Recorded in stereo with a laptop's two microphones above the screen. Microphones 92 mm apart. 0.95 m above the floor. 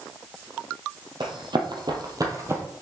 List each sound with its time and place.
1.2 s running footsteps: 55° right (ahead or behind), 1.7 m; by 2.6 s 25° right (ahead or behind), 1.4 m